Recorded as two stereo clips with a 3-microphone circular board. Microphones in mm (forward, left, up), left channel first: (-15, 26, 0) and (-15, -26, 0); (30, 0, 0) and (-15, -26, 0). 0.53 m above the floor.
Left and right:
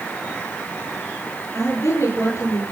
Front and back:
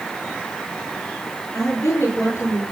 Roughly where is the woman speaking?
Ahead left.